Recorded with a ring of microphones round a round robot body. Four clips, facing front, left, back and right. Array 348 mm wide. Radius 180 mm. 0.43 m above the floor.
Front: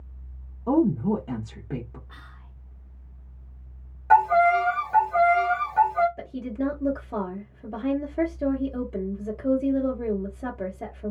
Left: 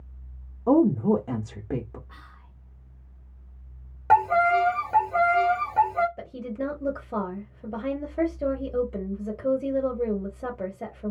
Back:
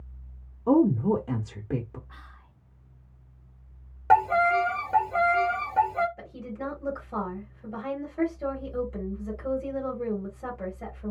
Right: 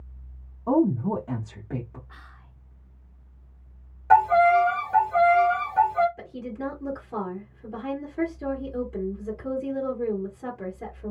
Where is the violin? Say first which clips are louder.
Right 3 dB, front 3 dB; 135° left, 0.9 m.